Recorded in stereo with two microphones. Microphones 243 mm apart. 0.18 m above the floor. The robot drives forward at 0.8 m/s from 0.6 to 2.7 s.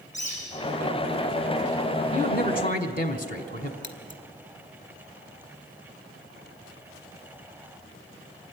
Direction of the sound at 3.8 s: 50° left (ahead or behind).